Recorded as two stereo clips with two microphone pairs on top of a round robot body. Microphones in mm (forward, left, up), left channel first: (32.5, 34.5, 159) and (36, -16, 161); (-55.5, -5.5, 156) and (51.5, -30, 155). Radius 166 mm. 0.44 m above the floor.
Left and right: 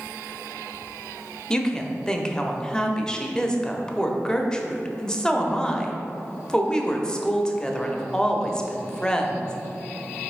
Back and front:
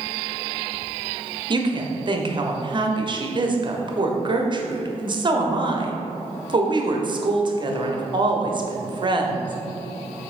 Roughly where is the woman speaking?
Ahead.